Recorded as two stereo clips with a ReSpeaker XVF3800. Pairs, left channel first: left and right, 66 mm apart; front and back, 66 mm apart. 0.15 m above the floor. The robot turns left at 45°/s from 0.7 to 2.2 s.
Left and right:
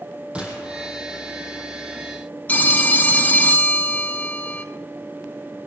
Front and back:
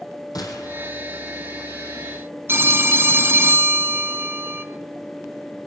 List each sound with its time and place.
0.3 s a gunshot: 15° right, 2.5 m; by 0.9 s 30° right, 2.5 m
2.5 s a phone ringing: 145° left, 0.8 m